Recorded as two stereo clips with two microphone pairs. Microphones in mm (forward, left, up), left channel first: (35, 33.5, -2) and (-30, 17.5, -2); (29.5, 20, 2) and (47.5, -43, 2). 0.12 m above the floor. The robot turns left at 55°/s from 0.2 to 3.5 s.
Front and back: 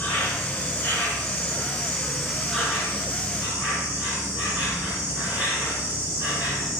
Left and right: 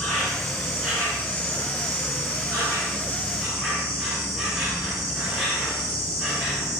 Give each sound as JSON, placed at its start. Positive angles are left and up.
{"t": 0.0, "sound": "an insect", "azimuth_deg": 35, "distance_m": 1.3}